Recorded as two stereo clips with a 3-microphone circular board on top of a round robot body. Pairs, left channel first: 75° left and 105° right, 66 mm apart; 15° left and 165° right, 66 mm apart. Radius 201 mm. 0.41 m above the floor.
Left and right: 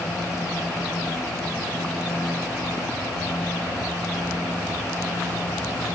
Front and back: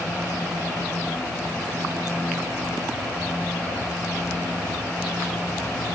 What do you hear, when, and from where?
Only background noise.